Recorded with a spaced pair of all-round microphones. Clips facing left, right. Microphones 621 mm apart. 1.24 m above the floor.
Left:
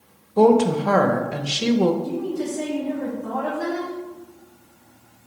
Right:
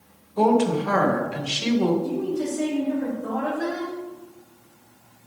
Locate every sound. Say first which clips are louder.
0.4 s a woman speaking: left 4 dB; 65° left (ahead or behind), 0.9 m
2.0 s a woman speaking: even; centre (ahead or behind), 3 m